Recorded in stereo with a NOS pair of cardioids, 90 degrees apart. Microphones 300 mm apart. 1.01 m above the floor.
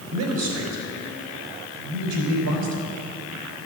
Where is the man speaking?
70° right, 4 m.